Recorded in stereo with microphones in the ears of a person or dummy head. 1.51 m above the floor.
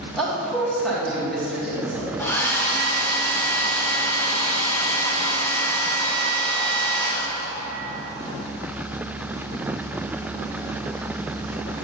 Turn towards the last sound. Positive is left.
turn(degrees=10)  # may be behind; listen again after turning